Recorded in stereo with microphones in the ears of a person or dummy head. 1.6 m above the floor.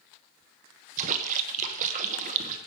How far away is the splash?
About 1.1 m.